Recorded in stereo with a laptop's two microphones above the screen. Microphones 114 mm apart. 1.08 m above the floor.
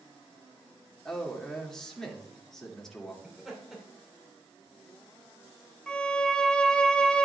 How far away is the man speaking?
About 2 m.